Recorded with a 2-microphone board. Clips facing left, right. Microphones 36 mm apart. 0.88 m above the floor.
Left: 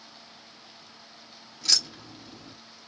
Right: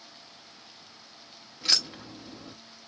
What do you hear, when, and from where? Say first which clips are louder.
1.6 s keys jangling: even; 20° right (ahead or behind), 0.7 m